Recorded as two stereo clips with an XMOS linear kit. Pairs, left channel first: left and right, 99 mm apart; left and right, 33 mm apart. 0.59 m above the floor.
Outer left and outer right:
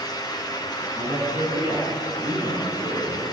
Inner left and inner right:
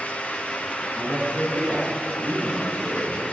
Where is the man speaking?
80° right, 6 m; by 3.2 s 55° right (ahead or behind), 7 m.